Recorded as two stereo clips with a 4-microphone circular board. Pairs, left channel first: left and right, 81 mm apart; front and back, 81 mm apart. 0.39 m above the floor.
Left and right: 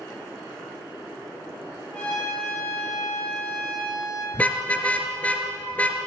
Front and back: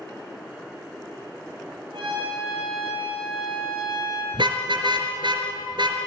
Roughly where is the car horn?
Behind.